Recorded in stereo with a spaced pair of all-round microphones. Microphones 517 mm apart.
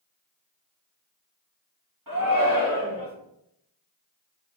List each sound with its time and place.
2.1 s a shout: 40° right (ahead or behind), 2.5 m